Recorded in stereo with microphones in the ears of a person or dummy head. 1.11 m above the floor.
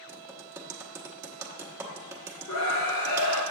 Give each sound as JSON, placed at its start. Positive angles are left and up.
{"t": 0.1, "sound": "typing on a keyboard", "side_deg": -10, "distance_m": 1.0}
{"t": 2.5, "sound": "a scream", "side_deg": 70, "distance_m": 1.7}